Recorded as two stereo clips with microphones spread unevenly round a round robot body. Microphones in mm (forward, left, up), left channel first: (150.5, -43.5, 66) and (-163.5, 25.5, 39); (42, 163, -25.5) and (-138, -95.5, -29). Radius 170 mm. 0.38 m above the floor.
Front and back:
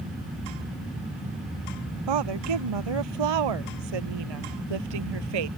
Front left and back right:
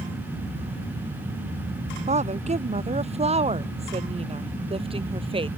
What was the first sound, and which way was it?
A woman speaking, 165° left.